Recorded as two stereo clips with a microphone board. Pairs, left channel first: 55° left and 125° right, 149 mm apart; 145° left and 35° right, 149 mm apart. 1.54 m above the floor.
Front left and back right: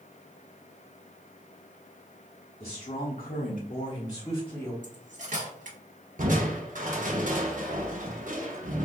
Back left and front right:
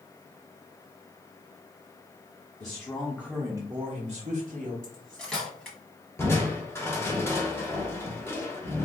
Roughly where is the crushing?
Behind right.